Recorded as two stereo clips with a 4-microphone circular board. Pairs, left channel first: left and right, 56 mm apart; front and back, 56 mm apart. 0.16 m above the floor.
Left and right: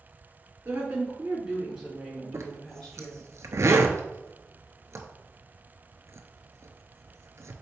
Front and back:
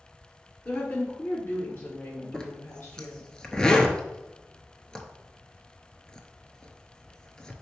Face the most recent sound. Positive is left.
turn(degrees=-75)